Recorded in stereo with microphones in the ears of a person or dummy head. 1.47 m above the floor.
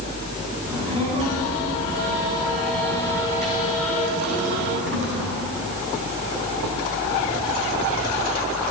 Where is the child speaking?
25° right (ahead or behind), 9.5 m; by 5.4 s 75° right (ahead or behind), 8 m.